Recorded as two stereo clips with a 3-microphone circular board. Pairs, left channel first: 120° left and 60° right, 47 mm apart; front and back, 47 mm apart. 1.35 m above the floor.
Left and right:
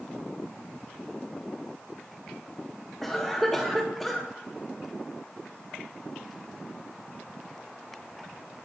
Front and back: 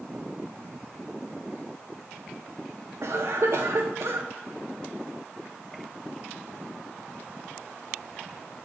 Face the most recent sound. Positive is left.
turn(degrees=-150)